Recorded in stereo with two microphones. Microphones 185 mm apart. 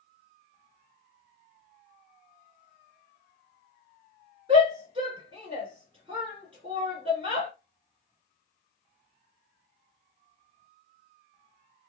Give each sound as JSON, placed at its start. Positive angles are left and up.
{"t": 4.5, "sound": "a shout", "side_deg": -30, "distance_m": 1.8}